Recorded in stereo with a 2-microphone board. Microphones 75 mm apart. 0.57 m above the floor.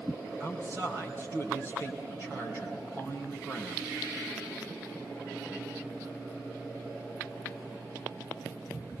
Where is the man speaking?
35° right (ahead or behind), 3.5 m.